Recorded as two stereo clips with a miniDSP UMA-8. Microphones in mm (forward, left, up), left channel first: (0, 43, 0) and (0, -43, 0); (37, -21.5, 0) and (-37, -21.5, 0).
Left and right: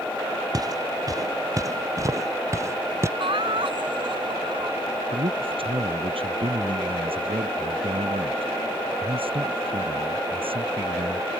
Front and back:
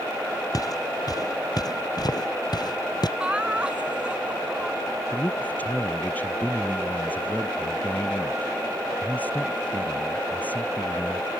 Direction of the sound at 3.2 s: 105° right.